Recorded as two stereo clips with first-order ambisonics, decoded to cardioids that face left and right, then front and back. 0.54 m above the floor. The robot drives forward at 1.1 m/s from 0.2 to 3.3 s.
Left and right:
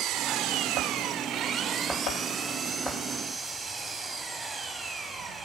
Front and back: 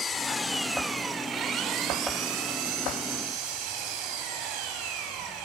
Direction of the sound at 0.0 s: 65° right.